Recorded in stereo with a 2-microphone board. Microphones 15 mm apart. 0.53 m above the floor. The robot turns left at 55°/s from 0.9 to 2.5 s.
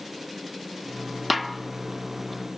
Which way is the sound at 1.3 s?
10° right (ahead or behind).